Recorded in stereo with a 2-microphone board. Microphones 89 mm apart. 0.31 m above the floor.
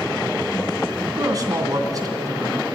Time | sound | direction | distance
1.2 | a man speaking | 40° right (ahead or behind) | 2.5 m